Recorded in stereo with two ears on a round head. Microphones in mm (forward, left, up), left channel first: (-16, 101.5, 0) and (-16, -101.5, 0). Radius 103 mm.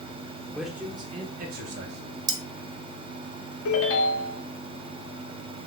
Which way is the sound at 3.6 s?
65° left (ahead or behind).